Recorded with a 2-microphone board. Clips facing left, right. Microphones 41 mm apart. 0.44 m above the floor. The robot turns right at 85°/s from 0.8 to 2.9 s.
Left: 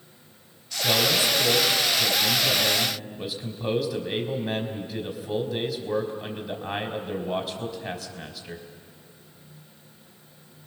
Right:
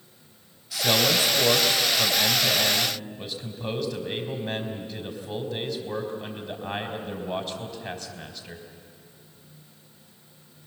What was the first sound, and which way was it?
A man speaking, straight behind.